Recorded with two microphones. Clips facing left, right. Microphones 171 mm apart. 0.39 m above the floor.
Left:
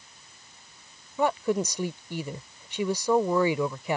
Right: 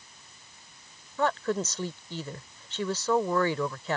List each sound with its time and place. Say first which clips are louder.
1.2 s a woman speaking: left 3 dB; 15° left (ahead or behind)